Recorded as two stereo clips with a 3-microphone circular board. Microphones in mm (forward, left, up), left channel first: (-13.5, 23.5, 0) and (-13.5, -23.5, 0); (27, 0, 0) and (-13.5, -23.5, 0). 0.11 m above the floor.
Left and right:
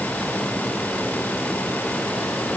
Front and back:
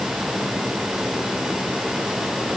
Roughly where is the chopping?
No chopping in this recording.